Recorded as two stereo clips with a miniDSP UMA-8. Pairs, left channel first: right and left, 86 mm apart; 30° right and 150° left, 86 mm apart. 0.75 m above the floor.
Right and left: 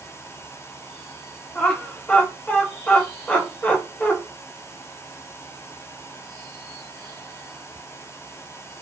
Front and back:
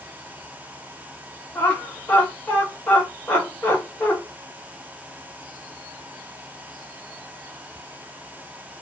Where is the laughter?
65° right, 0.9 m.